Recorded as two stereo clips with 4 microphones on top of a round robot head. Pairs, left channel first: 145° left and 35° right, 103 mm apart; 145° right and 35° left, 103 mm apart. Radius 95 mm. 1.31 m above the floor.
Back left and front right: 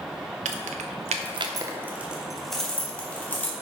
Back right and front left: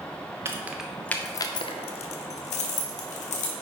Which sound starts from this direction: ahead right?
Keys jangling, at 0.5 s.